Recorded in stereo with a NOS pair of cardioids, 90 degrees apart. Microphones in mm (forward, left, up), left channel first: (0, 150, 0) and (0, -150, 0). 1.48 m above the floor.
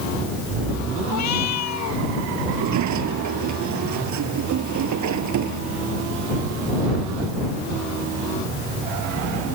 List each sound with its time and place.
1.1 s a cat meowing: 65° left
2.5 s a sliding door: 70° right